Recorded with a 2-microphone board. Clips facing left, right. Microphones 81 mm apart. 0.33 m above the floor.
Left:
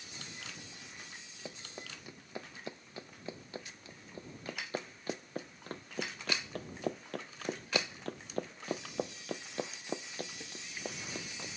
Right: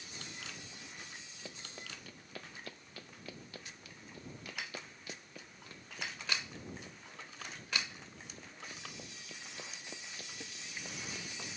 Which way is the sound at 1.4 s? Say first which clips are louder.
Left 3 dB; 15° left (ahead or behind).